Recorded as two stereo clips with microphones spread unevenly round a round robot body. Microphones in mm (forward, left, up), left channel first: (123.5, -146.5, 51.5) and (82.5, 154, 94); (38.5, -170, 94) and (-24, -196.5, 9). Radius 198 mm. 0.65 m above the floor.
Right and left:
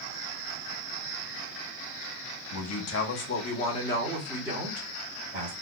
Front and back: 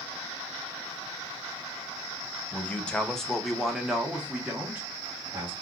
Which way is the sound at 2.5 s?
90° right.